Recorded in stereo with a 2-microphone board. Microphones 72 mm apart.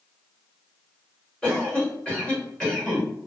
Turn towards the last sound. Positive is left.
turn(degrees=10)  # may be behind; listen again after turning